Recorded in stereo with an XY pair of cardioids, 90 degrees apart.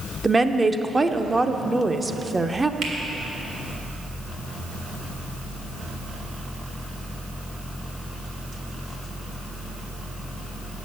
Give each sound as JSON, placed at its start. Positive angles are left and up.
{"t": 0.2, "sound": "a woman speaking", "azimuth_deg": -20, "distance_m": 0.6}
{"t": 2.8, "sound": "a finger snap", "azimuth_deg": -70, "distance_m": 1.9}